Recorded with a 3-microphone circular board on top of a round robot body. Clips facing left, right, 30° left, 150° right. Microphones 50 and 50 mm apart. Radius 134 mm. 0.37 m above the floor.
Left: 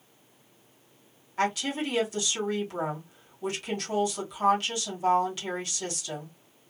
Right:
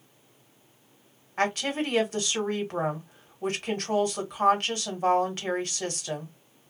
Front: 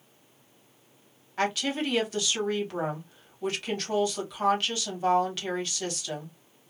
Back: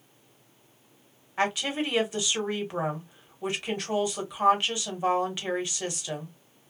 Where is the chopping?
I don't hear chopping.